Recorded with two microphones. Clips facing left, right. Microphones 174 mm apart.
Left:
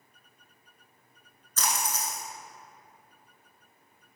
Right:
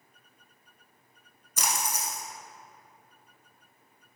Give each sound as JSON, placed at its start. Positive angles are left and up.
{"t": 1.6, "sound": "a splash", "side_deg": -15, "distance_m": 0.7}